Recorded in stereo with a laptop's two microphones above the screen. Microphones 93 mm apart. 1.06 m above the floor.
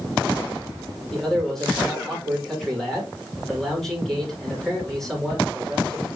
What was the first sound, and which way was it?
A man speaking, centre (ahead or behind).